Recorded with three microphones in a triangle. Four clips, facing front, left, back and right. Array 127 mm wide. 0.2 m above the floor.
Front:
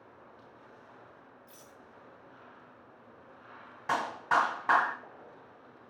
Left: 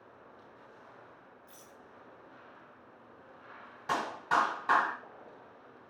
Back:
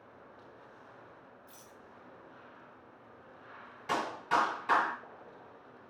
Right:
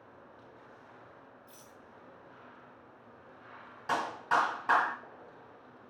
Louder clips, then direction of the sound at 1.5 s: Even, even; 155° right.